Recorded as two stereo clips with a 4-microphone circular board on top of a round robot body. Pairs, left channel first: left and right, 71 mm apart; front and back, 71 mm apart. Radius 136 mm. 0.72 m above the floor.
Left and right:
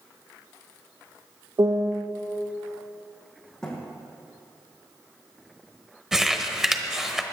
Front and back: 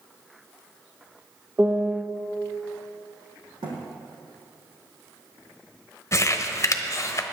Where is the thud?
170° left, 3 m.